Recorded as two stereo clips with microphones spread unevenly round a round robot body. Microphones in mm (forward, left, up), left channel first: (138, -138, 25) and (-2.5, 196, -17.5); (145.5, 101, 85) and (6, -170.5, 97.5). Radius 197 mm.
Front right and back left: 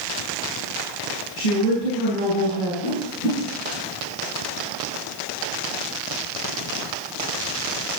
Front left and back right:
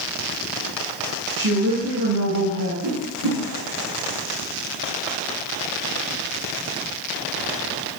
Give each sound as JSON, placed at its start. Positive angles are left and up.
{"t": 1.4, "sound": "a woman speaking", "azimuth_deg": -75, "distance_m": 4.0}
{"t": 2.8, "sound": "a whoosh", "azimuth_deg": -100, "distance_m": 5.5}